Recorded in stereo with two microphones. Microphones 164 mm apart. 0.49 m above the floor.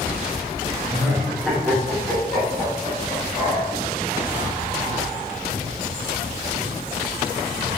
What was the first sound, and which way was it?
Laughter, 10° right (ahead or behind).